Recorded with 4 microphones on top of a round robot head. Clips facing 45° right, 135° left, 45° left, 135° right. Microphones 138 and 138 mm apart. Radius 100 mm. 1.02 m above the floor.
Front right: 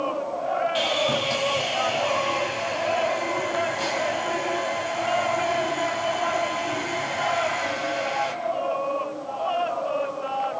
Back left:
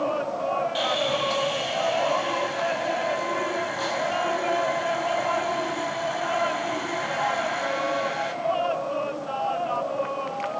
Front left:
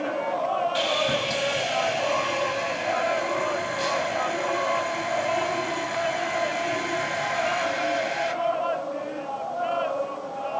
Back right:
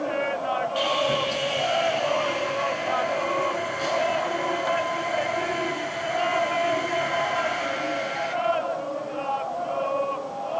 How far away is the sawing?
About 3.5 m.